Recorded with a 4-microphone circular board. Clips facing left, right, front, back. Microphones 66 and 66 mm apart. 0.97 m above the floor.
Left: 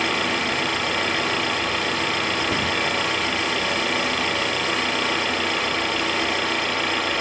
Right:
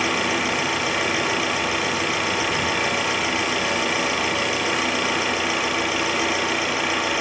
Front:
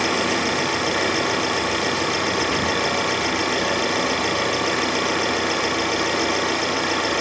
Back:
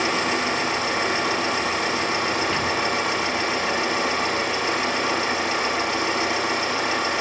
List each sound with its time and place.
0.0 s an engine running: 5° right, 5.5 m
2.5 s a cupboard door: 85° left, 1.9 m